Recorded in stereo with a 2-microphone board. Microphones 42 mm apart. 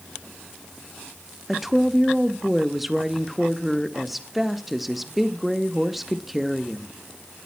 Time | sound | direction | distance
1.5 | a woman speaking | 5° right (ahead or behind) | 0.8 m